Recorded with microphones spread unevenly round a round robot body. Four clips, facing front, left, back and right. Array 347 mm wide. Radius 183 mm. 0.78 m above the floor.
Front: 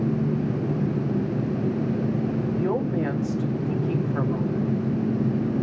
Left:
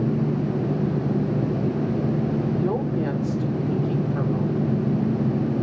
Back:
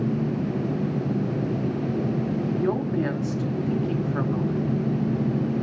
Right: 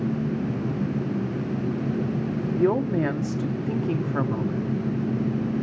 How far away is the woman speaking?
About 2.5 m.